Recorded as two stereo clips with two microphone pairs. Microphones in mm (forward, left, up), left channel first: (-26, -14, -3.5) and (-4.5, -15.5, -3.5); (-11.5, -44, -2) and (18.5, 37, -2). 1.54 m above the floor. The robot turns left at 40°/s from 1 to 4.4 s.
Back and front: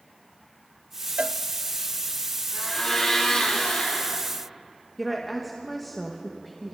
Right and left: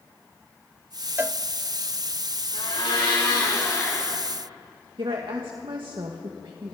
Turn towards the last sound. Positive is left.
turn(degrees=90)